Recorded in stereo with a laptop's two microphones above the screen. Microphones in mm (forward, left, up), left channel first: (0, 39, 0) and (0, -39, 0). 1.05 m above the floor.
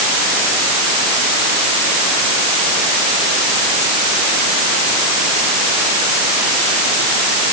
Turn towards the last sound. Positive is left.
No sound to turn to.